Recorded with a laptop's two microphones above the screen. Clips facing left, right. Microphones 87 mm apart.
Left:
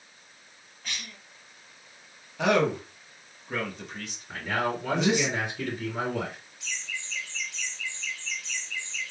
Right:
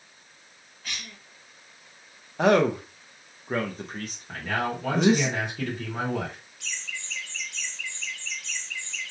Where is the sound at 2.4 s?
40° right (ahead or behind), 0.7 m.